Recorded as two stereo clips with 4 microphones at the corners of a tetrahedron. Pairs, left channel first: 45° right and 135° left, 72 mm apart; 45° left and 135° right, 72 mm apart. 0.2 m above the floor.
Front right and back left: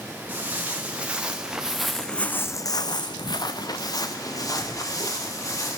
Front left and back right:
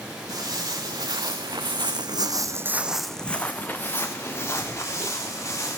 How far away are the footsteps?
About 2.5 m.